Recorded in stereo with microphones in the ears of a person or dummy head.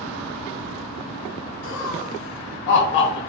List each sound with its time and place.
1.6 s laughter: 75° left (ahead or behind), 0.9 m; by 3.2 s 30° left (ahead or behind), 0.5 m